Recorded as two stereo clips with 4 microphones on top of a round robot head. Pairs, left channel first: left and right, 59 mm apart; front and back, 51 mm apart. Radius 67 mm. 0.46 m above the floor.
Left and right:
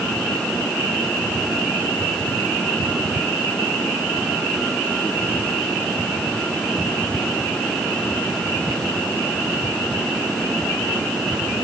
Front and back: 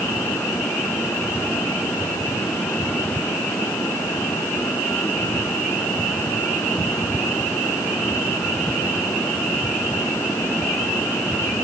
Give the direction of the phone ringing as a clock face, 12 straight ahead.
I don't hear a phone ringing.